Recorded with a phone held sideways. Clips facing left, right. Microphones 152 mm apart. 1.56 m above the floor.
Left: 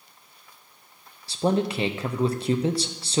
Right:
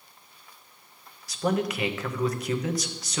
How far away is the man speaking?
About 0.7 m.